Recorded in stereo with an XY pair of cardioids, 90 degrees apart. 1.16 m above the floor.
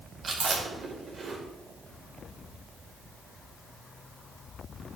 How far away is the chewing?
About 5 m.